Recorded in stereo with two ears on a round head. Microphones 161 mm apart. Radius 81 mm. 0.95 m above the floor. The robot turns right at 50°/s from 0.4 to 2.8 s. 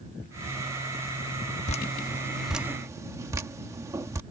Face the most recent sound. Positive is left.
turn(degrees=-15)  # may be behind; listen again after turning